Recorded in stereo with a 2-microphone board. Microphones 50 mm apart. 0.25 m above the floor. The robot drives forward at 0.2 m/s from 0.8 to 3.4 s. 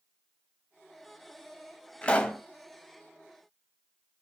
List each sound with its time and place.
2.0 s a pop: 20° left (ahead or behind), 0.6 m